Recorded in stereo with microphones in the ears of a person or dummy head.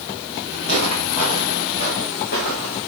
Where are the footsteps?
40° left (ahead or behind), 5 m; by 2.8 s 55° left (ahead or behind), 5.5 m.